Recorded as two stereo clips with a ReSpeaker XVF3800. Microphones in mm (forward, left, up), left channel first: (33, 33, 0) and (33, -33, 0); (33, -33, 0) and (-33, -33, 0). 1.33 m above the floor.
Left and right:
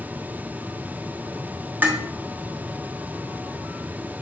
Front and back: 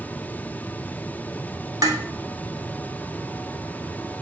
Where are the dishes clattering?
155° right, 3 m.